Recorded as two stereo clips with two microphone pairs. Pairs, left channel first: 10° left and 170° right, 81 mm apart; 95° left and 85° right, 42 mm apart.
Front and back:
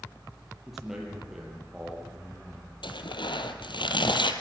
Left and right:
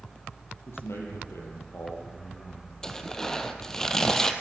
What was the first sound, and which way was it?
A man speaking, 105° left.